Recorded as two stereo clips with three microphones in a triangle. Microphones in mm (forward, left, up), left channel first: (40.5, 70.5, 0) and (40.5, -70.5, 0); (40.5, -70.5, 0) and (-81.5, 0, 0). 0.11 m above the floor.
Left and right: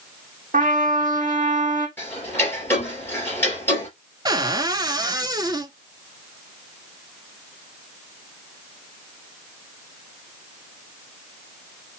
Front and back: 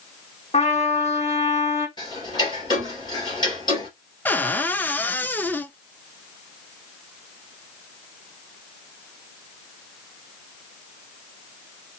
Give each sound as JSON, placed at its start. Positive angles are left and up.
{"t": 0.5, "sound": "a trumpet", "azimuth_deg": -65, "distance_m": 1.3}
{"t": 2.0, "sound": "ticking", "azimuth_deg": 20, "distance_m": 2.5}
{"t": 4.2, "sound": "a cupboard door", "azimuth_deg": -90, "distance_m": 0.5}